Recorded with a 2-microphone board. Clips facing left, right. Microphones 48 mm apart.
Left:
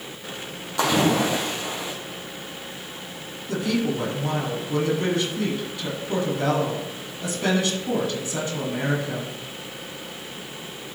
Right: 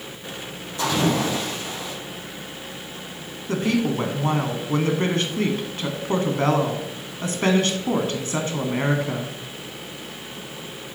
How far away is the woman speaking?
About 1.5 m.